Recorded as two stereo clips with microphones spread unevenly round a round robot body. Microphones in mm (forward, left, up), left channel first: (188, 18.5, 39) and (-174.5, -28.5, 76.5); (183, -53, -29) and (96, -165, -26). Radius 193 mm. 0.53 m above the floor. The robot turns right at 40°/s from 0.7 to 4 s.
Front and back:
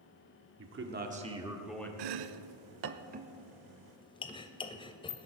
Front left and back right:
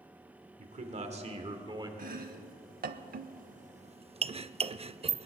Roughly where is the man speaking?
Behind right.